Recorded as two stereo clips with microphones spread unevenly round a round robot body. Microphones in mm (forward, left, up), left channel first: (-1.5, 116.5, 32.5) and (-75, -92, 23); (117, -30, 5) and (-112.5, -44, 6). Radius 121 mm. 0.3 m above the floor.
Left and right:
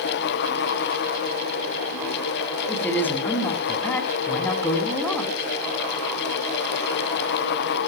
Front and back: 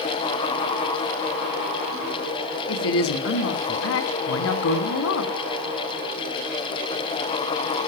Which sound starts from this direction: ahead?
A woman speaking, at 2.7 s.